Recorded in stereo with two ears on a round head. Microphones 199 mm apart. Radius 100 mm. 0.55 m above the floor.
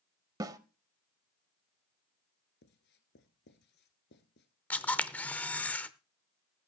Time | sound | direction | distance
0.4 | a snare drum | 15° right (ahead or behind) | 0.7 m
2.6 | writing | 50° left (ahead or behind) | 1.5 m
4.7 | a camera shutter | 5° left (ahead or behind) | 0.7 m